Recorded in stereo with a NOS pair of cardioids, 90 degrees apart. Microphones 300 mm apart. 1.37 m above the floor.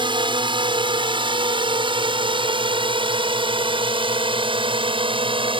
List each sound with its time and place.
0.0 s a drone: 15° right